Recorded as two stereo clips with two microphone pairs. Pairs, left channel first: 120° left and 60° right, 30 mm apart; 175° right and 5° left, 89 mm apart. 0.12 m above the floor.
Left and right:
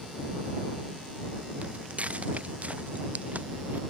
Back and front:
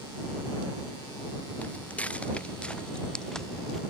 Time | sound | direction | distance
1.6 | footsteps | 105° right | ?